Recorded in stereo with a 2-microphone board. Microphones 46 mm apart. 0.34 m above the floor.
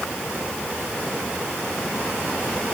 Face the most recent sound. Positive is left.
No sound to turn to.